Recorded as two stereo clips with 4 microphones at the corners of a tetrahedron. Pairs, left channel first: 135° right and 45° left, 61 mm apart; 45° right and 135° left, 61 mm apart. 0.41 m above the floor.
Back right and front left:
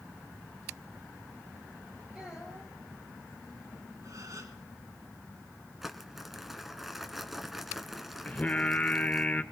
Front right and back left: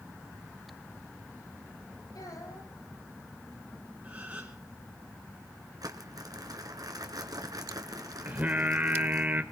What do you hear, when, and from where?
2.1 s a child speaking: 35° right, 9.5 m
4.0 s a gasp: 70° left, 4 m
5.8 s crumpling: 130° left, 1.6 m
8.2 s singing: 170° left, 1.2 m